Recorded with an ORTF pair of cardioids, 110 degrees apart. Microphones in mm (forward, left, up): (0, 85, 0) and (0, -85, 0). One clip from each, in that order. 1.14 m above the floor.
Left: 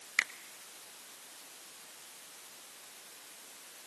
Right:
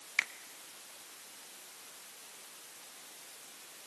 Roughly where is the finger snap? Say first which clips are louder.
Left 1 dB; ahead.